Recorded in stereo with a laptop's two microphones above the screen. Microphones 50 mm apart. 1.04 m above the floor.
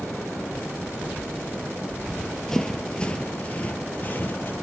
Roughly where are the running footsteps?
Centre.